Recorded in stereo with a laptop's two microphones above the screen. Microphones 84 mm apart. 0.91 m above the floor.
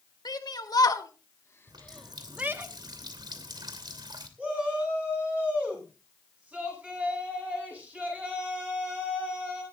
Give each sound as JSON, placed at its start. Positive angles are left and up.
{"t": 0.2, "sound": "a shout", "side_deg": 55, "distance_m": 2.0}
{"t": 1.7, "sound": "a running tap", "side_deg": -60, "distance_m": 2.5}
{"t": 4.4, "sound": "a shout", "side_deg": -15, "distance_m": 8.0}